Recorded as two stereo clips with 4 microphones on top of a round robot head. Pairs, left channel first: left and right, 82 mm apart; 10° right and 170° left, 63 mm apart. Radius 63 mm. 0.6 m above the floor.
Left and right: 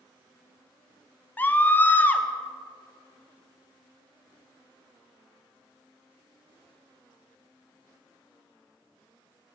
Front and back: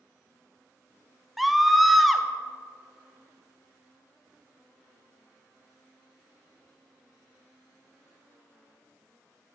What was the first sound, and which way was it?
A scream, 85° left.